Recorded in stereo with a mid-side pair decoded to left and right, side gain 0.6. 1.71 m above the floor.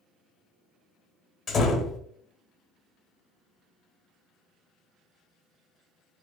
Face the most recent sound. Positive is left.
turn(degrees=45)